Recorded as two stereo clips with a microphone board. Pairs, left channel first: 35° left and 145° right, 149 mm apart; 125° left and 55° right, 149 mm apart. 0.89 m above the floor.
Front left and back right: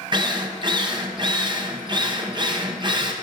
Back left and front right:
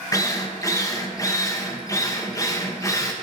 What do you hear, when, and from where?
0.1 s a drill: straight behind, 1.0 m